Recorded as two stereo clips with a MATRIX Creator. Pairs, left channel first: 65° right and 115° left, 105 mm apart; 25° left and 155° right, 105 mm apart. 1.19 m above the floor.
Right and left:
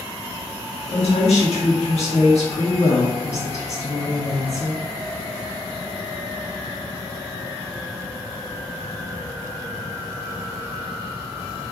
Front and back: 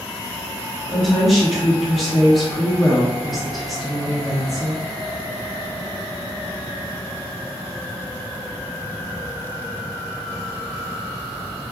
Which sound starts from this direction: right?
A woman speaking, at 0.9 s.